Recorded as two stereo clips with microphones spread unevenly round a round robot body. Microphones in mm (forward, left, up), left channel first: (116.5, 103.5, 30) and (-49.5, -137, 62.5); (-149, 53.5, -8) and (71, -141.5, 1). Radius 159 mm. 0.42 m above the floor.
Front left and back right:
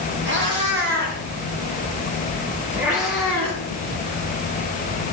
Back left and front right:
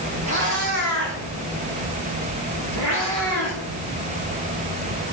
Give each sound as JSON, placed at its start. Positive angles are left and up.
{"t": 0.2, "sound": "a cat meowing", "azimuth_deg": -75, "distance_m": 6.0}